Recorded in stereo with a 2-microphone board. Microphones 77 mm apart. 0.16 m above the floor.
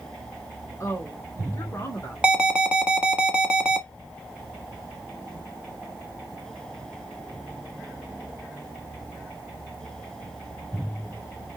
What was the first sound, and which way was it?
A woman speaking, 40° left (ahead or behind).